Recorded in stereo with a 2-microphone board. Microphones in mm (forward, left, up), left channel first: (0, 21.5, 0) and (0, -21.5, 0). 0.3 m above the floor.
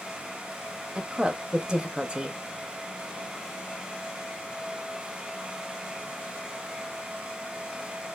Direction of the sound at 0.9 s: 20° right (ahead or behind).